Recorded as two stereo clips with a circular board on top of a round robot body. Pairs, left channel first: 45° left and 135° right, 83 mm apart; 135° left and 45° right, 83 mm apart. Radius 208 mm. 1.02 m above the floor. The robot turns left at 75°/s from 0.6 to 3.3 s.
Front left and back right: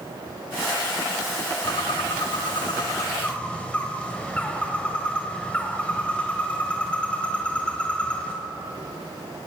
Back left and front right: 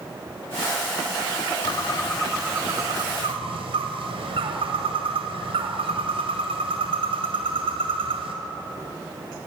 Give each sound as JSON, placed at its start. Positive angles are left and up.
{"t": 1.6, "sound": "a bird", "azimuth_deg": 95, "distance_m": 1.9}